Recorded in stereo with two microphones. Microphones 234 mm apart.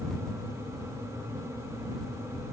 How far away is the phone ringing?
No phone ringing in this recording.